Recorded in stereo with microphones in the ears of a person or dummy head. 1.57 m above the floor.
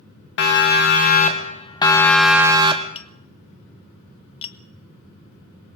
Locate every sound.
0.4 s a siren: 60° left (ahead or behind), 3 m; by 2.9 s 30° right (ahead or behind), 1.7 m
3.0 s tapping: 35° left (ahead or behind), 1.4 m